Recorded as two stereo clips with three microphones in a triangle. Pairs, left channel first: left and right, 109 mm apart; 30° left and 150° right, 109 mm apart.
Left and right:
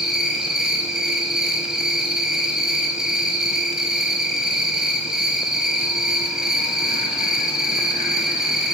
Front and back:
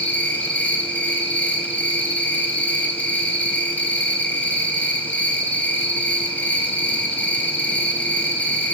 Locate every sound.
0.0 s an insect: 15° right, 1.1 m